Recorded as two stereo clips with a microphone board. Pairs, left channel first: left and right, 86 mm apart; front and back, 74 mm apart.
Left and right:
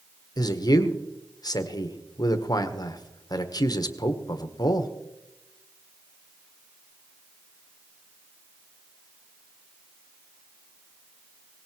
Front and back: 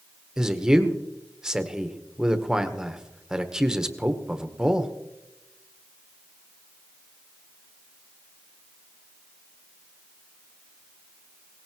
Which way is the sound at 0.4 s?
100° left.